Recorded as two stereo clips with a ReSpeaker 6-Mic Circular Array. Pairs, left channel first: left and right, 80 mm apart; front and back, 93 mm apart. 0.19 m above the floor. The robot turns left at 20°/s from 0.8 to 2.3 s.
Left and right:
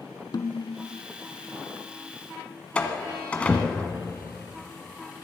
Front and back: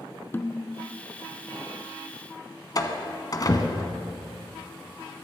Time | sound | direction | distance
0.3 | a snare drum | 65° left | 0.5 m
2.8 | a door slam | 20° left | 1.3 m